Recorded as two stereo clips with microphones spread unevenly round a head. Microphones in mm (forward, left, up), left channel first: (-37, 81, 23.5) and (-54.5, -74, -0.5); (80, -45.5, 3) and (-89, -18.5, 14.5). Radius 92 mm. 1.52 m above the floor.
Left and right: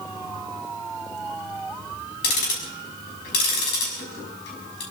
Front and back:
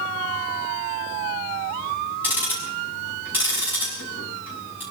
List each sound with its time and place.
2.2 s ticking: 90° left, 6 m